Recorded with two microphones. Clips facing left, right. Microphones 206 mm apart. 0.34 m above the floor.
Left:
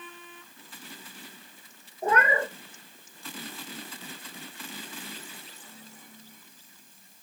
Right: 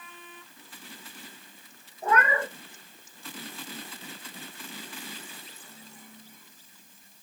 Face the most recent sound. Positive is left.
turn(degrees=35)  # may be behind; listen again after turning